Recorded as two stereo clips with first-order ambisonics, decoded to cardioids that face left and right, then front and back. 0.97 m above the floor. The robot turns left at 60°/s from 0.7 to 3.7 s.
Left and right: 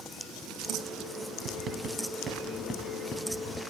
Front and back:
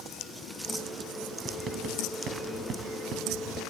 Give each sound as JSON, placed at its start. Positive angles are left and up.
{"t": 1.4, "sound": "writing", "azimuth_deg": -115, "distance_m": 1.3}